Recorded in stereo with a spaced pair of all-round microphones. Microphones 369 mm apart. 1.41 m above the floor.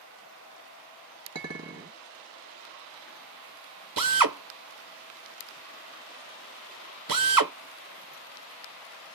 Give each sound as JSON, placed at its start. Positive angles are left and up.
{"t": 1.4, "sound": "a clink", "side_deg": -45, "distance_m": 0.9}
{"t": 4.0, "sound": "a drill", "side_deg": -60, "distance_m": 0.5}